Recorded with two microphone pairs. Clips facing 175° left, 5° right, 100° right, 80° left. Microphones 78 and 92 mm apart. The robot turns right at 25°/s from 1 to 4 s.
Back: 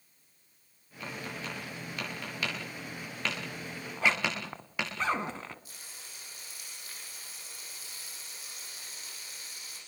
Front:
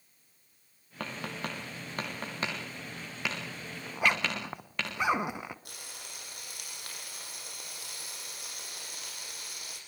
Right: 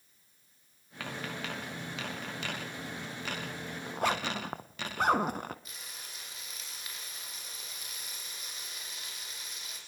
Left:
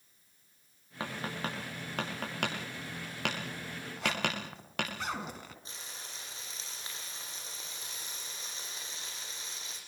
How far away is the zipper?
About 1.2 m.